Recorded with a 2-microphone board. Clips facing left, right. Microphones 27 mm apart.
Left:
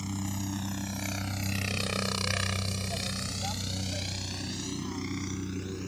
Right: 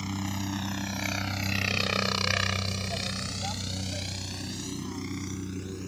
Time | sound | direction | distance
0.0 | a helicopter | 25° right (ahead or behind) | ?